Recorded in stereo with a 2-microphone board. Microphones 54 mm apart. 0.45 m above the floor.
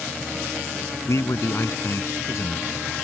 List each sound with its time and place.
1.1 s a man speaking: 65° left (ahead or behind)